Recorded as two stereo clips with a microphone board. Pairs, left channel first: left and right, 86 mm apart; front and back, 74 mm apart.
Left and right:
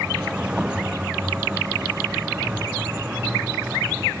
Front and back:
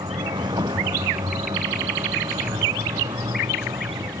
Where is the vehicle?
170° right; by 4.2 s 165° right.